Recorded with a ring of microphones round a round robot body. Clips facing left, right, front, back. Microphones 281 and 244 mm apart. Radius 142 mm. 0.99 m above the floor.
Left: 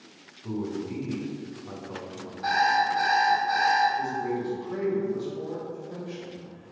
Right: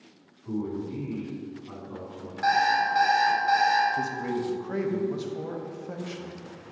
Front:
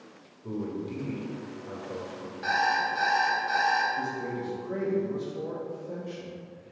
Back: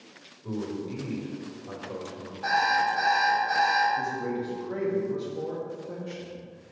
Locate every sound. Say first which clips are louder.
0.4 s a man speaking: even, back 1 dB; 75° left, 1.8 m
2.4 s an alarm clock: right 1 dB, back 3 dB; 70° right, 1.8 m
4.0 s a man speaking: even, back 2 dB; 90° right, 1.0 m